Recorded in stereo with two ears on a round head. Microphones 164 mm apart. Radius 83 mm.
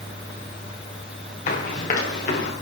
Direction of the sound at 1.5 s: 40° left (ahead or behind).